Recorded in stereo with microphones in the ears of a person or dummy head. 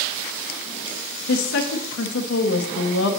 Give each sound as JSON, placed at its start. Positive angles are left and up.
{"t": 1.3, "sound": "a woman speaking", "side_deg": 70, "distance_m": 0.7}